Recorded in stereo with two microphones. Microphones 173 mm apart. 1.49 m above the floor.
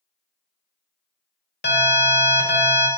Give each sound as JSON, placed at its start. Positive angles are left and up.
{"t": 1.6, "sound": "an alarm", "side_deg": 70, "distance_m": 1.1}